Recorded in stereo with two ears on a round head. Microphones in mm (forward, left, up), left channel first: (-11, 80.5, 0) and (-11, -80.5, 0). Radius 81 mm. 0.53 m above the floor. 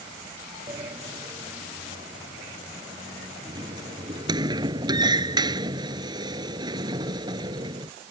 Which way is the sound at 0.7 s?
25° right (ahead or behind).